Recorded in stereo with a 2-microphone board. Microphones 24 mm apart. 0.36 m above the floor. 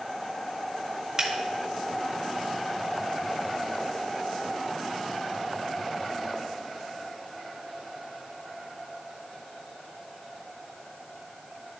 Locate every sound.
1.2 s a finger snap: 25° right (ahead or behind), 1.2 m